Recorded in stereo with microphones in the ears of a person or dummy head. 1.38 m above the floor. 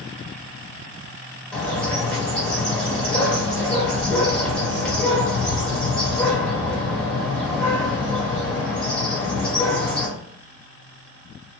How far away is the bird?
About 1.4 m.